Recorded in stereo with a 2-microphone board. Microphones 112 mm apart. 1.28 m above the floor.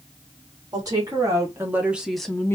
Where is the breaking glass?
No breaking glass in this recording.